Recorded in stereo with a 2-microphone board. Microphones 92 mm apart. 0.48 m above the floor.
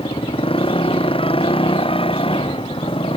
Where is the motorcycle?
75° left (ahead or behind).